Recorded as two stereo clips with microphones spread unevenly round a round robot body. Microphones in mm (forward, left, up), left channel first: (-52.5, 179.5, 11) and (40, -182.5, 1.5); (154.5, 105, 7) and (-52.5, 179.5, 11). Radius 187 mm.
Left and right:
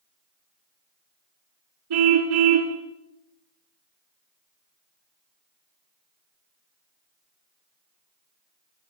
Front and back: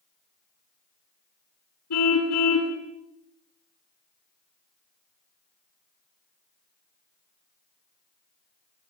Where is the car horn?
40° right, 2.5 m.